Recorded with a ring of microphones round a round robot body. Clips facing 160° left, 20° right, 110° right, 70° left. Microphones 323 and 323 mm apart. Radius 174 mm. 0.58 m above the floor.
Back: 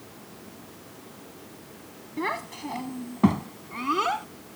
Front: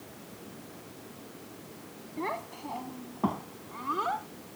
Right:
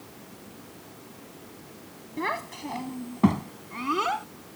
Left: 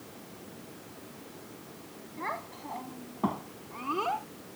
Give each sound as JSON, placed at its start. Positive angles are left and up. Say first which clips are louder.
{"t": 2.2, "sound": "a child speaking", "louder": "back 4 dB, right 9 dB", "azimuth_deg": -145}